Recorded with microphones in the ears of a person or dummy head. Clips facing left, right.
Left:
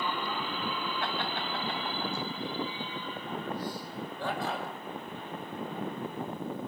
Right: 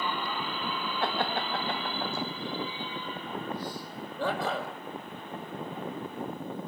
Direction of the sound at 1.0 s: 35° right (ahead or behind).